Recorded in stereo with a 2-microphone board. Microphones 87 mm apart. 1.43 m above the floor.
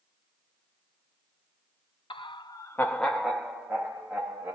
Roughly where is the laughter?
Left.